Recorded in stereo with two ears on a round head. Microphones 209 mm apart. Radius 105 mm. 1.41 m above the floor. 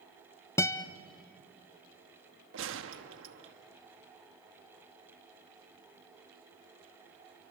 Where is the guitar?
10° left (ahead or behind), 0.6 m.